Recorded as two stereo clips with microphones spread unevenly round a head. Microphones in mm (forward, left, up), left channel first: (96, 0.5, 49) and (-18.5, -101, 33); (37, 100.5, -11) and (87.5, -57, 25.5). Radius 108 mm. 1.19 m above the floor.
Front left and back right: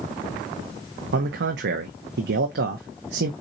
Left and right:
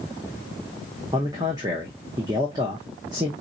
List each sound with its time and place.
1.1 s a man speaking: 145° right, 0.7 m